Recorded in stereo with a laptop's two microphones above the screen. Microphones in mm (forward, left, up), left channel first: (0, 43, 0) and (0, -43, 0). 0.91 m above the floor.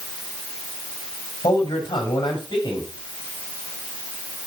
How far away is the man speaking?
About 6 m.